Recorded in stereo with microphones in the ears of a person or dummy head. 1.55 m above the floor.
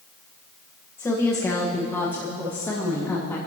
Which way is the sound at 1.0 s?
15° left (ahead or behind).